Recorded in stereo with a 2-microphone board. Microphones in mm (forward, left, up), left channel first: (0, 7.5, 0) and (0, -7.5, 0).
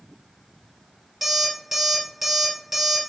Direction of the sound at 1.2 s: 20° right (ahead or behind).